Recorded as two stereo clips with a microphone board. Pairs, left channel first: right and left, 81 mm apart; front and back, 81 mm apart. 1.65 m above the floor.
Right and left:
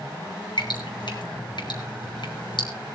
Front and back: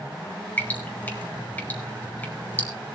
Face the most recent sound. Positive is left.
turn(degrees=-70)